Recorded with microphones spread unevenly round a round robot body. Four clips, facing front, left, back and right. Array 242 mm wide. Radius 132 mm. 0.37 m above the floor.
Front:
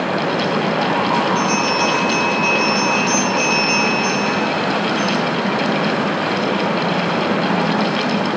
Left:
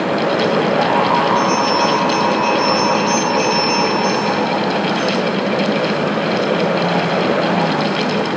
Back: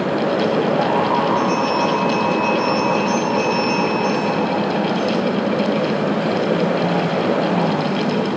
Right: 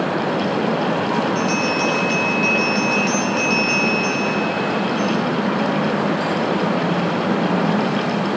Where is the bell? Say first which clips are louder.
Left 5 dB, even; 50° right, 7.5 m.